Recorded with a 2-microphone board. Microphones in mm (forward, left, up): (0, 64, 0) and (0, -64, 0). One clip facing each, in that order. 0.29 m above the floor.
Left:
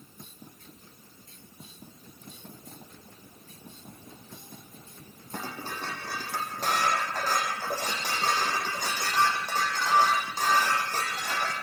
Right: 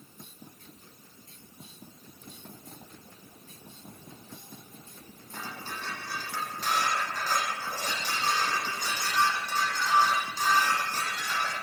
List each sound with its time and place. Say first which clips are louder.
5.3 s dishes clattering: left 3 dB; 45° left (ahead or behind), 9 m